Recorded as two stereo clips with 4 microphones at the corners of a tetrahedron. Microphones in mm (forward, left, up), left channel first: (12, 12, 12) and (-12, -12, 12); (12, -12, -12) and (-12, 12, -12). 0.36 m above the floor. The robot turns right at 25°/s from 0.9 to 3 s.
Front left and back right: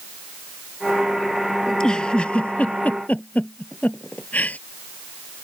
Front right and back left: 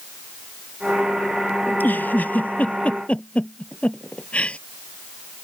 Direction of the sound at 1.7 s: 25° right.